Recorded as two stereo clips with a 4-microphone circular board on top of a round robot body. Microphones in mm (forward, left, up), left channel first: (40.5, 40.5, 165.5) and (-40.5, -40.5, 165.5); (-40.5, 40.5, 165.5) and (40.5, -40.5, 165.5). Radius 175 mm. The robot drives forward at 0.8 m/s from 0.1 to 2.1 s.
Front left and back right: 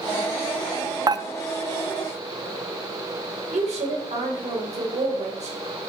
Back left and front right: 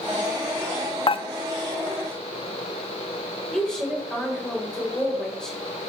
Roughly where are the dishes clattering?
Behind.